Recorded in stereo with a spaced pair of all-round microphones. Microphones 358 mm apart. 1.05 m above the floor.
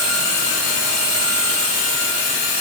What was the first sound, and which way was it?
Only background noise.